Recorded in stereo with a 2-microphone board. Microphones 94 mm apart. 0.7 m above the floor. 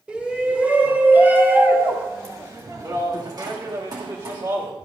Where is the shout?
15° right (ahead or behind), 3 m; by 4.7 s 45° right (ahead or behind), 1.8 m.